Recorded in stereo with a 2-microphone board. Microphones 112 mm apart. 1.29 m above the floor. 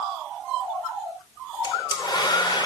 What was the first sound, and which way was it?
A hair dryer, 40° left (ahead or behind).